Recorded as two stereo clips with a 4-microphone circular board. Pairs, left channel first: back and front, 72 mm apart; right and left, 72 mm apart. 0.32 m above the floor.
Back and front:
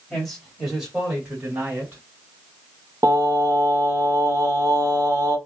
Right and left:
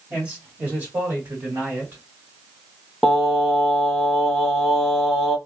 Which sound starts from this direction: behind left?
A man speaking, at 0.1 s.